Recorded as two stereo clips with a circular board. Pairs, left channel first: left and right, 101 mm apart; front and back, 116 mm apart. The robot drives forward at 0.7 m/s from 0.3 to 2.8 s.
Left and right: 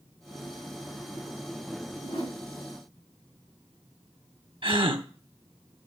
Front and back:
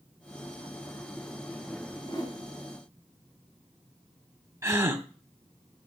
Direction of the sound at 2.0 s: 50° left.